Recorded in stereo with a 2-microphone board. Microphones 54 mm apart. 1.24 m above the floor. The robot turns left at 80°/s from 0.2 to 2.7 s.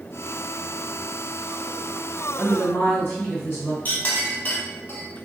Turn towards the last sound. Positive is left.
turn(degrees=35)  # may be behind; listen again after turning